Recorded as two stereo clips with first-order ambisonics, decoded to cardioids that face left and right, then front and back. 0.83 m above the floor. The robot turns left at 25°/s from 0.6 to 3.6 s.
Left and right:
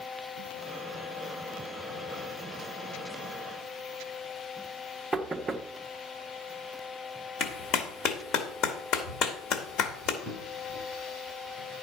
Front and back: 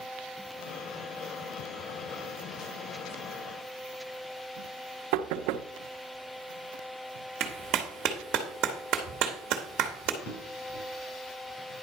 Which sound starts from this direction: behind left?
A clap, at 7.4 s.